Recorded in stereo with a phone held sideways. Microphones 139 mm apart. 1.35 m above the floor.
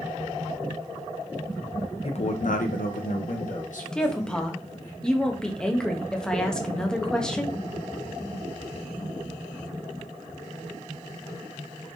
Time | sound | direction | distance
2.0 | a man speaking | 45° left (ahead or behind) | 0.7 m
3.9 | a woman speaking | 5° left (ahead or behind) | 0.8 m